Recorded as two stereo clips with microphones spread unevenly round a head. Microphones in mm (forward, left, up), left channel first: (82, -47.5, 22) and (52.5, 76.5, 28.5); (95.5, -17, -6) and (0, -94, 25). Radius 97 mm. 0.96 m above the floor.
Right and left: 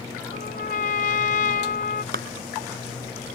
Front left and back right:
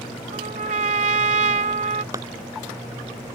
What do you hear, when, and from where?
0.3 s a trumpet: 120° right
2.1 s a clap: 145° left